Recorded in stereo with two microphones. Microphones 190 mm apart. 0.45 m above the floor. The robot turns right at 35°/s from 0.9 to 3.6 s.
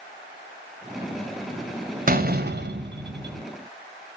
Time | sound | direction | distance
2.1 | a door slam | 130° right | 2.0 m